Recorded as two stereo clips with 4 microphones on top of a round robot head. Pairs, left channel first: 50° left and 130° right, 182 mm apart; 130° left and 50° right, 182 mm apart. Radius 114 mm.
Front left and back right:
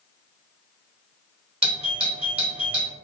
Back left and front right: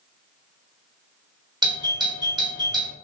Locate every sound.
1.6 s a doorbell: 100° right, 1.7 m